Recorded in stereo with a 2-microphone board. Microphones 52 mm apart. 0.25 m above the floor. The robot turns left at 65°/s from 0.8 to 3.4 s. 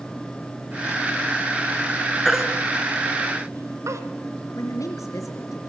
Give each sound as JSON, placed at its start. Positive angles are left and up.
{"t": 2.2, "sound": "a baby crying", "side_deg": 5, "distance_m": 1.8}
{"t": 4.5, "sound": "a woman speaking", "side_deg": 75, "distance_m": 3.5}